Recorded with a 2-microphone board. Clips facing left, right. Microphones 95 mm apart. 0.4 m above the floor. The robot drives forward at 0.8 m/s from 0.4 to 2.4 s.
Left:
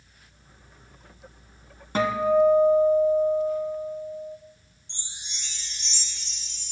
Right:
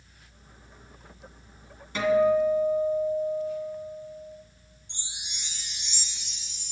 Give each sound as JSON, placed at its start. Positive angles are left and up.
{"t": 1.9, "sound": "a guitar", "side_deg": 45, "distance_m": 1.5}
{"t": 4.9, "sound": "a chime", "side_deg": -10, "distance_m": 1.4}